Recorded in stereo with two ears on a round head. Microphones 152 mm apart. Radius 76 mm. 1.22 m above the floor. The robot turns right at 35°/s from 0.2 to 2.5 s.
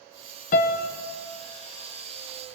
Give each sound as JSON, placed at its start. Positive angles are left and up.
{"t": 0.5, "sound": "a piano", "side_deg": 50, "distance_m": 0.7}